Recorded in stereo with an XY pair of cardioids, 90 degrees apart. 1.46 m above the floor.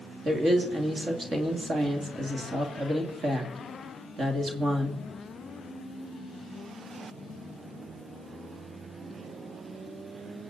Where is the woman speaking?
45° right, 2.5 m.